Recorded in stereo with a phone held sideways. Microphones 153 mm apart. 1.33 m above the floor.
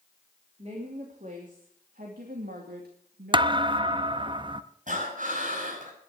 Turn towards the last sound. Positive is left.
turn(degrees=-55)  # may be behind; listen again after turning